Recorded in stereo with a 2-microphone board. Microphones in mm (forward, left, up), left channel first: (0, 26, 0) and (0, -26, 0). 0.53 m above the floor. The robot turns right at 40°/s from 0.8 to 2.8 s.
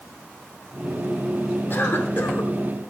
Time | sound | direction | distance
1.7 | a cough | 75° left | 1.2 m